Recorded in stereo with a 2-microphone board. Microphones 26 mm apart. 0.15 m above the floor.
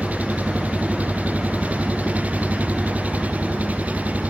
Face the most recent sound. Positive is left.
turn(degrees=-65)  # may be behind; listen again after turning